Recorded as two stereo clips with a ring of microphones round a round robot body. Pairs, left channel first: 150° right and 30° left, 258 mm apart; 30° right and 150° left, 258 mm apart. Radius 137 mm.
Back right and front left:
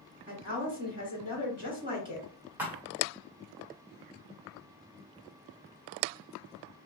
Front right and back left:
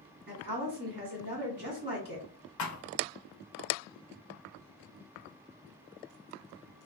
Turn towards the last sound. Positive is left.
turn(degrees=-55)